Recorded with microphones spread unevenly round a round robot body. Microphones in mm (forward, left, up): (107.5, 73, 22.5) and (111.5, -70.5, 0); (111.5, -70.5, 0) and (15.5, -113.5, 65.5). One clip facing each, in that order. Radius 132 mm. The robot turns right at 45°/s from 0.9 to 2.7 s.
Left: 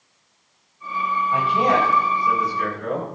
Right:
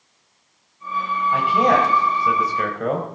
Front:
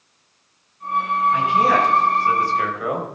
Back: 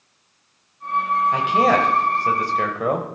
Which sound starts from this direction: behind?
A man speaking, at 1.3 s.